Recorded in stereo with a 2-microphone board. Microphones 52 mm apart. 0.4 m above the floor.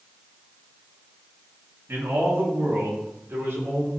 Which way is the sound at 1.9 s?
55° right (ahead or behind).